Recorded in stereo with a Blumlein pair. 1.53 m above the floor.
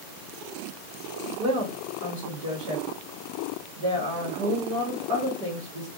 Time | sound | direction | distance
1.4 | a woman speaking | 40° right | 1.1 m